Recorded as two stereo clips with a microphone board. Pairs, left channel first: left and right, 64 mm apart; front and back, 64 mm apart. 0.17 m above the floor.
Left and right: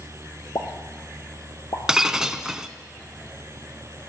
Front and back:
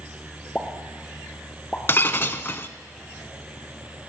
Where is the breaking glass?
15° right, 0.6 m.